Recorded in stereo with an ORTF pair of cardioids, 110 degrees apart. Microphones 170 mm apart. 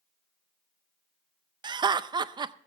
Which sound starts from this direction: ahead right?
Laughter, at 1.6 s.